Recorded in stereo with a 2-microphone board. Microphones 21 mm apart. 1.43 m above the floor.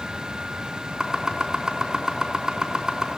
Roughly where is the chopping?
Right.